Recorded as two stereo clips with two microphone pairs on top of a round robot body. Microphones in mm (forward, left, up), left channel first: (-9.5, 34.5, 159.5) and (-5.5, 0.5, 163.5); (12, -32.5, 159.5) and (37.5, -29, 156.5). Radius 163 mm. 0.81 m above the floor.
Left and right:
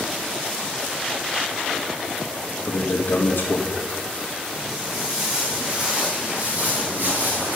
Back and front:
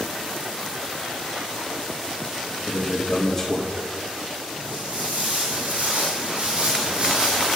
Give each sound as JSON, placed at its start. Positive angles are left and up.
{"t": 2.6, "sound": "a man speaking", "azimuth_deg": 115, "distance_m": 1.6}
{"t": 4.6, "sound": "footsteps", "azimuth_deg": 0, "distance_m": 4.0}